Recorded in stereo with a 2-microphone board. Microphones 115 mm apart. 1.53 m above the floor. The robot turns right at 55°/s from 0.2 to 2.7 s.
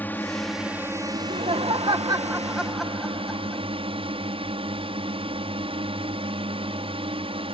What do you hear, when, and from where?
0.0 s a drone: 165° left; by 7.5 s 60° right
1.1 s laughter: 90° right; by 3.6 s 5° right